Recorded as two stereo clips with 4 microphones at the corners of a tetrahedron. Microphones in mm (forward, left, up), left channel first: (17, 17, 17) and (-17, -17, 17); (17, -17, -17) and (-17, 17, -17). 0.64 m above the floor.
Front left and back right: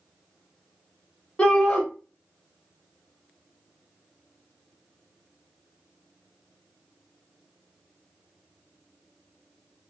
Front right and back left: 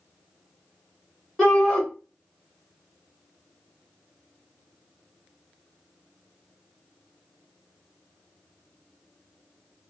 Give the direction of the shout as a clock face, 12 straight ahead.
11 o'clock.